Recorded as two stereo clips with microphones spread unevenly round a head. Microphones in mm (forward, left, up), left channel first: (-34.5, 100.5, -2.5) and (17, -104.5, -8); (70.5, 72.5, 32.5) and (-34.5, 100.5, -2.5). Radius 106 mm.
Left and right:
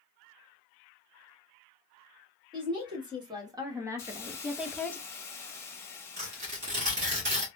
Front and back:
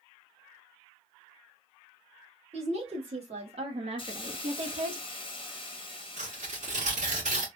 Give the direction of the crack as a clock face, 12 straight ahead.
I don't hear a crack.